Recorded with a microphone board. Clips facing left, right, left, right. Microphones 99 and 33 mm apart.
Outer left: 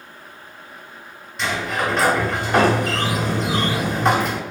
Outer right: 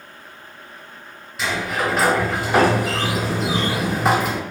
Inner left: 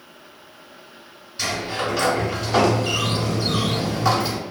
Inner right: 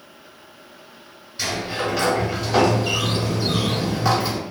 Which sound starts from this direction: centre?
A sliding door, at 1.4 s.